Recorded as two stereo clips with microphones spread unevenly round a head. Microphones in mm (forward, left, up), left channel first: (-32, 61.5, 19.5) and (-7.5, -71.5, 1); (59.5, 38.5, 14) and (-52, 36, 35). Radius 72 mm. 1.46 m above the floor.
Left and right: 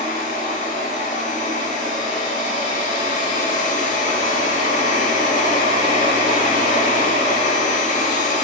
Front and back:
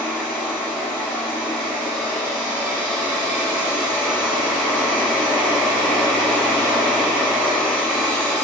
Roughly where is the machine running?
Left.